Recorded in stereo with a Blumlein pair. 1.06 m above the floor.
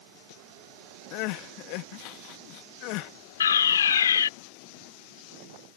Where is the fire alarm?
65° left.